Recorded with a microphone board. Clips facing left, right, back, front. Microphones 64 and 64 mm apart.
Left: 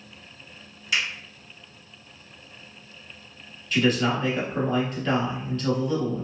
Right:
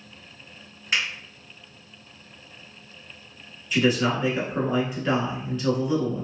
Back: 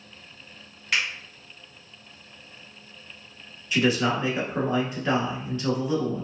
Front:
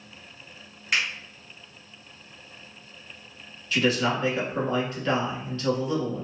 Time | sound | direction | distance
0.9 | a finger snap | 75° right | 1.9 m
3.7 | a man speaking | 145° right | 1.1 m